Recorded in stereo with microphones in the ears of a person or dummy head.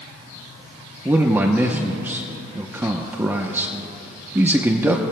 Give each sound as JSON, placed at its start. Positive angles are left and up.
{"t": 1.1, "sound": "a man speaking", "side_deg": -10, "distance_m": 0.9}